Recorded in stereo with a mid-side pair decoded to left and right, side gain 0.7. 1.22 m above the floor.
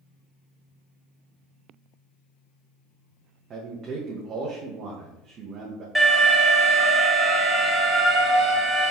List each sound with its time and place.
3.5 s a man speaking: 40° right, 1.0 m
6.0 s an alarm: straight ahead, 2 m